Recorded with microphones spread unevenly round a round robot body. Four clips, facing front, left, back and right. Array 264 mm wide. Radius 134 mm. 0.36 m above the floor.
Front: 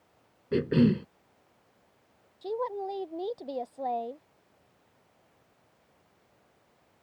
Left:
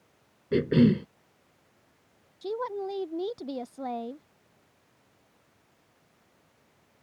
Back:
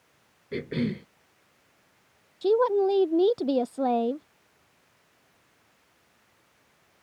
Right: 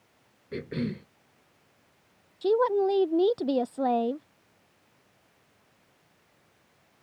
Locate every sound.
0.5 s a cough: 70° left
2.4 s a woman speaking: 135° right